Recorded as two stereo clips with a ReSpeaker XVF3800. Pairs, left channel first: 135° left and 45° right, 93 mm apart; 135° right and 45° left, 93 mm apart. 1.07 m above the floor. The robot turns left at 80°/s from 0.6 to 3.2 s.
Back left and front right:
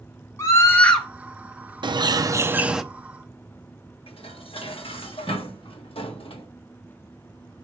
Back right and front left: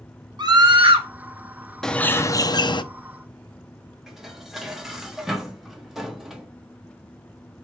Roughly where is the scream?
Left.